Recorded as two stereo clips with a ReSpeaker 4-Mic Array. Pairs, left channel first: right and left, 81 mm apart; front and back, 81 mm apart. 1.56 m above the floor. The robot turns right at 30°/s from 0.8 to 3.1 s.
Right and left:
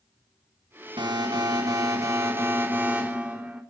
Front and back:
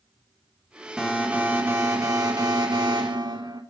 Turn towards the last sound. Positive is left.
turn(degrees=165)